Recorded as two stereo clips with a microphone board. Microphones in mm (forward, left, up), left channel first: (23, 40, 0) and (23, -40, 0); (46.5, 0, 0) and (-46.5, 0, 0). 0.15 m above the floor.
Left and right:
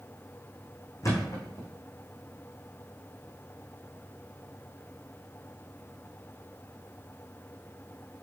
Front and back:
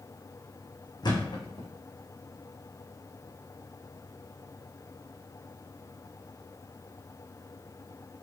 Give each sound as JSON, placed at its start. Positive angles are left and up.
{"t": 1.0, "sound": "a thud", "azimuth_deg": 40, "distance_m": 4.0}